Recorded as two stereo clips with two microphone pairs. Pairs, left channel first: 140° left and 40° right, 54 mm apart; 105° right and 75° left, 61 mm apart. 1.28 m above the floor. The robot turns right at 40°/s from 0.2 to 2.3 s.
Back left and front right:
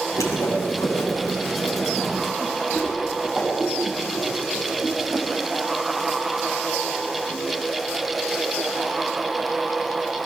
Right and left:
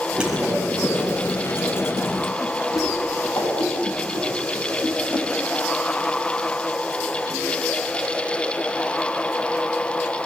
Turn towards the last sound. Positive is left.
turn(degrees=-125)